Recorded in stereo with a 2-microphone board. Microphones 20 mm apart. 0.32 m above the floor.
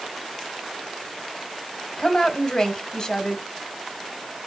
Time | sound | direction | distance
2.0 | a woman speaking | 35° left (ahead or behind) | 1.4 m